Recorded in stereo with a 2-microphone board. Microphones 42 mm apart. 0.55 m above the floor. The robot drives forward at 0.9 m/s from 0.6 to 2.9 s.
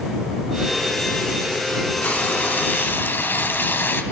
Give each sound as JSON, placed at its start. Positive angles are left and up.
{"t": 2.0, "sound": "frying", "side_deg": 45, "distance_m": 3.5}